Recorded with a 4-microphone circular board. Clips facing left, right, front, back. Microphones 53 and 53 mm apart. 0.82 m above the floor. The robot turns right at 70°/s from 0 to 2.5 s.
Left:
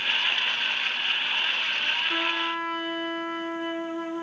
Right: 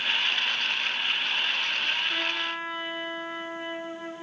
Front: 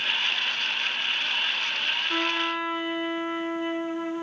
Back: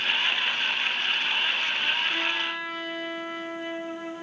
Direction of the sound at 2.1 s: 50° left.